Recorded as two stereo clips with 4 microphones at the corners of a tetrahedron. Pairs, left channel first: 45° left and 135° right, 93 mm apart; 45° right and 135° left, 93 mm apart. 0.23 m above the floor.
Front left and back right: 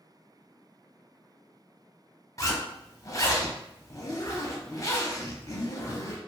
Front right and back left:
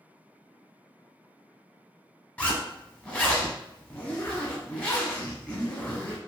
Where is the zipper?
20° left, 0.8 m.